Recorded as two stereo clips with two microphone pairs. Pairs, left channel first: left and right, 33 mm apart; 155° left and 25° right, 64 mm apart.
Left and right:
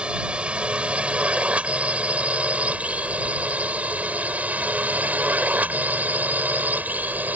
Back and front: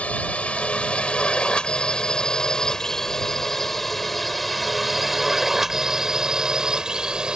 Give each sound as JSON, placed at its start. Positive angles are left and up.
{"t": 0.0, "sound": "a drone", "azimuth_deg": -140}